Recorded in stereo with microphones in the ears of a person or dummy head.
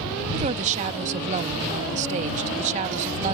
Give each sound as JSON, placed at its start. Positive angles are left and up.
{"t": 0.3, "sound": "a woman speaking", "side_deg": -35}